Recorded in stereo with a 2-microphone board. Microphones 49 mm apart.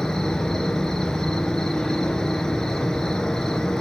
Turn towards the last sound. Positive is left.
turn(degrees=10)  # may be behind; listen again after turning